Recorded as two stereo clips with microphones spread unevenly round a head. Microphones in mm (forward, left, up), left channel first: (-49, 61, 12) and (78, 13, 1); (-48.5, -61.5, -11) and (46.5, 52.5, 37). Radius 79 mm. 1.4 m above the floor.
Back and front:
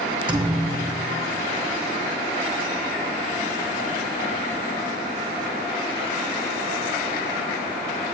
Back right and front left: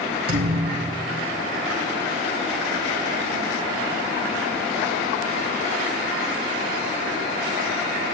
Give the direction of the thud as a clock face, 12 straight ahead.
11 o'clock.